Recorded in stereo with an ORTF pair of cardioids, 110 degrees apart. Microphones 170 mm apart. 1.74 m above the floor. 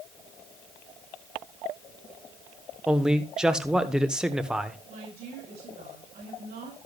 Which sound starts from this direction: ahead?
A man speaking, at 2.9 s.